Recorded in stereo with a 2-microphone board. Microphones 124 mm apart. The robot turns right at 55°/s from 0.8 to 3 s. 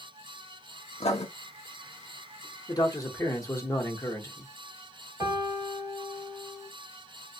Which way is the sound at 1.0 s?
55° left (ahead or behind).